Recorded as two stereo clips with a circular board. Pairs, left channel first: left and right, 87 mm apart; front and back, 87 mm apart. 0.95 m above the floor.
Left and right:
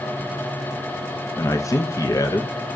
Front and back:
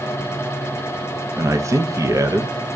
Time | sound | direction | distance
1.4 | a man speaking | 135° left | 0.6 m